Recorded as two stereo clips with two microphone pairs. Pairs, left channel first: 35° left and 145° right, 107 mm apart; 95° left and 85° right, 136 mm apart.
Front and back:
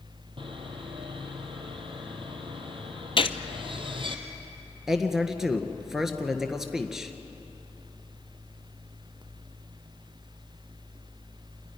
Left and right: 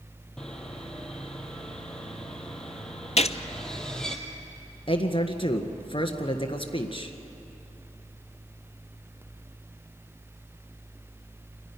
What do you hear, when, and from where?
0.4 s sawing: straight behind, 2 m
3.2 s a gunshot: 65° left, 0.7 m
4.9 s a man speaking: 130° left, 1.7 m